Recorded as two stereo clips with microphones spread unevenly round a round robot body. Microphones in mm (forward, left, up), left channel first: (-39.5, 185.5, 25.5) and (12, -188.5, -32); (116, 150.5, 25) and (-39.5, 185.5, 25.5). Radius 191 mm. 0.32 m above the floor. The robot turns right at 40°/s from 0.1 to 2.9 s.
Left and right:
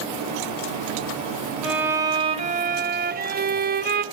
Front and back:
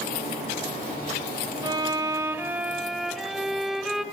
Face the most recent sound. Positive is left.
turn(degrees=-105)